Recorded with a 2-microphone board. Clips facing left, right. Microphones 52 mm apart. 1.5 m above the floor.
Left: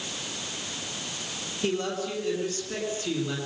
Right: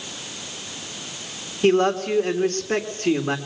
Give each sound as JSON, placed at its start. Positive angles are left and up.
{"t": 1.6, "sound": "a man speaking", "side_deg": -55, "distance_m": 3.5}